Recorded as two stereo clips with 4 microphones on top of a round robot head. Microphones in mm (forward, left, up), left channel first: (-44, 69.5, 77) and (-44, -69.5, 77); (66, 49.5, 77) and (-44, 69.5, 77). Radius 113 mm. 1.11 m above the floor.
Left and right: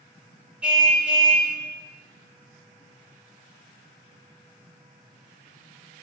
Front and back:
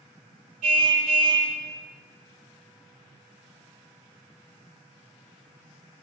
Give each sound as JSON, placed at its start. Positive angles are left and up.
{"t": 0.6, "sound": "a car horn", "azimuth_deg": -170, "distance_m": 4.5}